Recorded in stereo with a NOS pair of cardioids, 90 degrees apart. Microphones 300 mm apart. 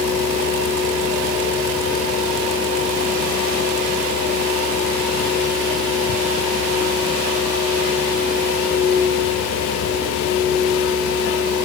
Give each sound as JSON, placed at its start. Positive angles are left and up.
{"t": 0.0, "sound": "a fan", "azimuth_deg": 60, "distance_m": 4.5}